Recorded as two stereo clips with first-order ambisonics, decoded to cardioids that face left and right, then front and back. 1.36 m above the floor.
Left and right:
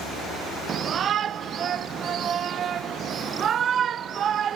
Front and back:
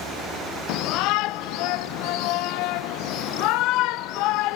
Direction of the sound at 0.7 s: 30° right.